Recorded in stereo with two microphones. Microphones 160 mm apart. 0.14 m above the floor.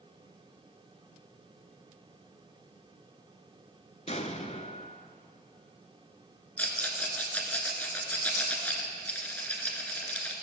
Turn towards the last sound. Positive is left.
turn(degrees=10)  # may be behind; listen again after turning